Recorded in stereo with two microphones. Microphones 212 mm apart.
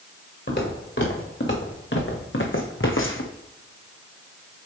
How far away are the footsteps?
About 2.5 m.